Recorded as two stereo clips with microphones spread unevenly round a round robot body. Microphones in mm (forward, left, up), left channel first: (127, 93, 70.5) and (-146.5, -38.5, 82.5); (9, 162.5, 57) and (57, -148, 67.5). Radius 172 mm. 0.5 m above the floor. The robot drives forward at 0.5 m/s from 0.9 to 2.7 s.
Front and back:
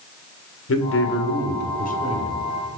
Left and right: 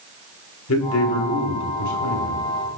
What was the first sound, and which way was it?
A man speaking, 65° left.